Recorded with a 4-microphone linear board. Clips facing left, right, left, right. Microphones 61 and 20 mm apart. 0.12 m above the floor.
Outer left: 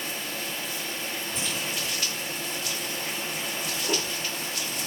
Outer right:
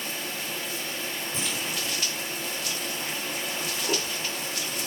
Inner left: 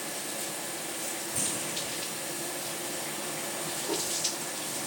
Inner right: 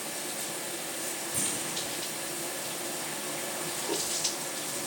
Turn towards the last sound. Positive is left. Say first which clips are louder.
# outer right 1 dB, even
turn(degrees=-75)  # may be behind; listen again after turning